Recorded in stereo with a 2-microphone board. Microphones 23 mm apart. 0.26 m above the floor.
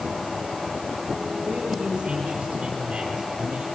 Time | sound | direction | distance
1.5 | a man speaking | 40° right (ahead or behind) | 5 m